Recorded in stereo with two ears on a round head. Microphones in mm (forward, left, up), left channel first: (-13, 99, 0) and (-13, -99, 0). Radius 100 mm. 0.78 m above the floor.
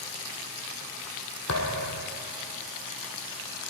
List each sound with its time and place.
1.5 s a thud: 75° left (ahead or behind), 3 m